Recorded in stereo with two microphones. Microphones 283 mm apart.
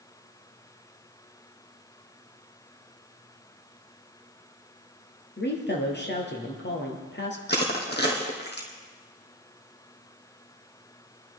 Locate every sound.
5.4 s a woman speaking: 40° left (ahead or behind), 2.5 m
7.5 s crushing: 35° left (ahead or behind), 2 m